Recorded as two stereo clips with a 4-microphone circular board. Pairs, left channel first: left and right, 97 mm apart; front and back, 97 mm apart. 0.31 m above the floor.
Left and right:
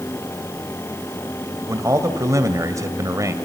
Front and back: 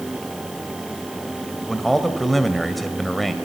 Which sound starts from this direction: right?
A man speaking, at 1.7 s.